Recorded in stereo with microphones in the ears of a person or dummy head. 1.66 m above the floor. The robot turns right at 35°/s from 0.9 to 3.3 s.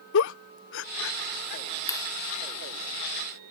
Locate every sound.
0.1 s a giggle: 70° left (ahead or behind); by 1.6 s 45° left (ahead or behind)
1.9 s a clap: 25° left (ahead or behind); by 2.1 s 30° left (ahead or behind)